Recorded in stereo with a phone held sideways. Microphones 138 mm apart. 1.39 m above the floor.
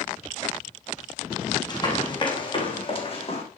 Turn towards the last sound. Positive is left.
turn(degrees=45)  # may be behind; listen again after turning